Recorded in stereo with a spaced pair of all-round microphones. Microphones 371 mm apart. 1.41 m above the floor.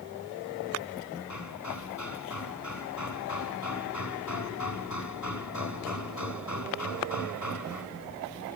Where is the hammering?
45° left (ahead or behind).